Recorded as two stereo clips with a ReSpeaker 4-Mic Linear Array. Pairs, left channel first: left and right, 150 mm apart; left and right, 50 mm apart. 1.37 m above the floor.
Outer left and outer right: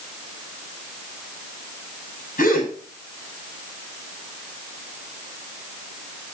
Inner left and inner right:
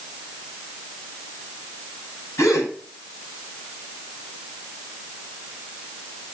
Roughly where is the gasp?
Left.